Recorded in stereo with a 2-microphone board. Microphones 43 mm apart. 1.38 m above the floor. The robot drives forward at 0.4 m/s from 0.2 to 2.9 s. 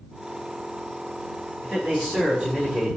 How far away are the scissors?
No scissors in this recording.